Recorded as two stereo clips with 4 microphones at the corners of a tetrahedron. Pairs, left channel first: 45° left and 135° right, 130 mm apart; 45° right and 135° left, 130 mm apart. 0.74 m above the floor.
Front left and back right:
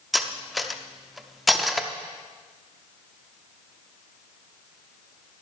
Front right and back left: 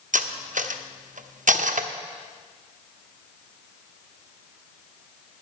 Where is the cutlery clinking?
135° left, 0.6 m.